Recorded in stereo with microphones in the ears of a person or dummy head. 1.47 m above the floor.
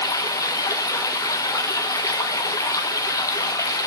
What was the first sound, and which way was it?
Running water, 20° left (ahead or behind).